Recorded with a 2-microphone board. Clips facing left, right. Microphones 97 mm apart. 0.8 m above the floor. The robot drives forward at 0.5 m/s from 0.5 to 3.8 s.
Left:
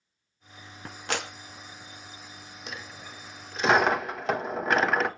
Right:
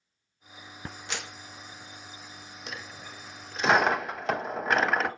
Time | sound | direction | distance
1.1 | a clap | 60° left (ahead or behind) | 0.7 m
2.7 | a dropped coin | 5° left (ahead or behind) | 0.8 m